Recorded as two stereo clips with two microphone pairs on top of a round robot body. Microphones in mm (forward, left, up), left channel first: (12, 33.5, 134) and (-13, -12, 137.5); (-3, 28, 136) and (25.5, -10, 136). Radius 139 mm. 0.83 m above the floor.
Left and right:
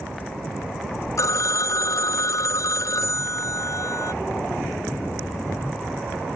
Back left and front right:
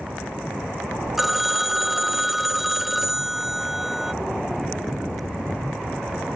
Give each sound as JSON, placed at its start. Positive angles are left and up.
{"t": 1.2, "sound": "a phone ringing", "azimuth_deg": 35}